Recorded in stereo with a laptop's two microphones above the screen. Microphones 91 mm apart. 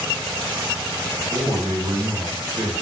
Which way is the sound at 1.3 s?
75° right (ahead or behind).